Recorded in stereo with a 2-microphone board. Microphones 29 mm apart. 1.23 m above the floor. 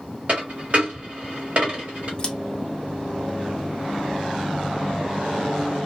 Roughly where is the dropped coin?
Right.